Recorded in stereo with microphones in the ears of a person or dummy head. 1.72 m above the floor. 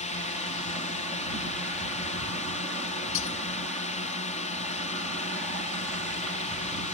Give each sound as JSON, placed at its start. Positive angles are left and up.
{"t": 0.0, "sound": "a drone", "side_deg": 35}
{"t": 3.1, "sound": "breaking glass", "side_deg": 60}